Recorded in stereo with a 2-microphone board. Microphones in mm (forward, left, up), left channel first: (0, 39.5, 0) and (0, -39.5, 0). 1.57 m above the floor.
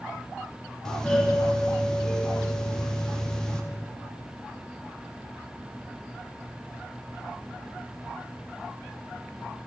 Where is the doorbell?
10° left (ahead or behind), 0.8 m.